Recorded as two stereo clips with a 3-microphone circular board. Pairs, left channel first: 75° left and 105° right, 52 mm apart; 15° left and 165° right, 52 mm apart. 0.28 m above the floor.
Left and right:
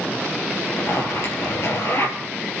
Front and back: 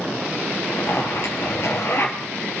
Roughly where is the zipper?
Ahead left.